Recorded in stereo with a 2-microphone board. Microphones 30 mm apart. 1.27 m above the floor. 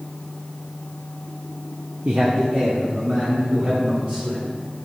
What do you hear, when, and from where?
2.0 s a man speaking: 50° right (ahead or behind), 0.7 m; by 4.5 s 65° right (ahead or behind), 3.5 m